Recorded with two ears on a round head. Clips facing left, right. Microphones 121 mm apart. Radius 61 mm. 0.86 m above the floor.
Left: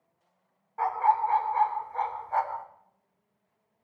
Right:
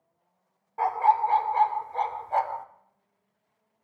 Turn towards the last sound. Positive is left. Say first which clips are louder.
# right 2 dB
turn(degrees=-30)  # may be behind; listen again after turning